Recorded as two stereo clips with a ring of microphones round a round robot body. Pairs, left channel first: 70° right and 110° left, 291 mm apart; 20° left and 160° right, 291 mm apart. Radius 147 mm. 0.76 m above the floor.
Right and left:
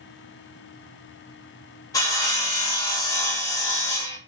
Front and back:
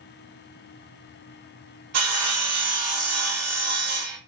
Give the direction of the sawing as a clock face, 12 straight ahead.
5 o'clock.